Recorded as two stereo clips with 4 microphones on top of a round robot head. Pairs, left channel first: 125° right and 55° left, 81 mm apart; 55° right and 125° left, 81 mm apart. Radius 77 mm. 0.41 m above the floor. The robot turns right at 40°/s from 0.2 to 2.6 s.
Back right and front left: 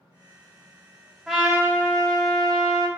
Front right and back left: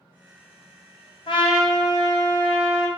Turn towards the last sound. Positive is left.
turn(degrees=25)